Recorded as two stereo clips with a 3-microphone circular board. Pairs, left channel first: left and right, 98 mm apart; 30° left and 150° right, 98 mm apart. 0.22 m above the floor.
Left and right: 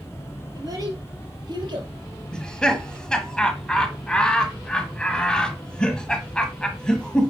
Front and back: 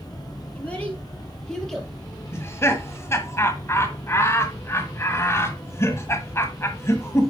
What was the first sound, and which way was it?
A child speaking, 45° right.